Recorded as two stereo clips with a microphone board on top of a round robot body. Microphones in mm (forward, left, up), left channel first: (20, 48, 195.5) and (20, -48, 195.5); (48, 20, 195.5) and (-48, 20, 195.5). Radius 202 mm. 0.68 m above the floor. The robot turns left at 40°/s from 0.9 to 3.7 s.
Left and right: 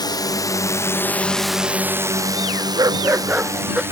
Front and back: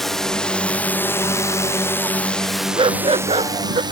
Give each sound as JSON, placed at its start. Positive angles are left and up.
{"t": 0.0, "sound": "a drone", "azimuth_deg": 90}
{"t": 2.8, "sound": "a dog barking", "azimuth_deg": -140}